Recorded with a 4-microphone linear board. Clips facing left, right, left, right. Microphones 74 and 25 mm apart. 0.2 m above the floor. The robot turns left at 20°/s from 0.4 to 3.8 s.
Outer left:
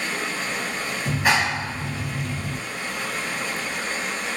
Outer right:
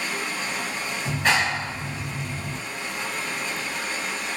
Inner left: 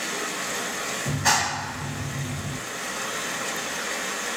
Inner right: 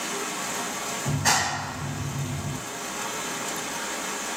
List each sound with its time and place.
0.0 s running water: 135° left, 1.8 m; by 4.4 s 65° left, 1.8 m
1.1 s a clap: 5° left (ahead or behind), 0.9 m; by 2.6 s 20° left (ahead or behind), 0.9 m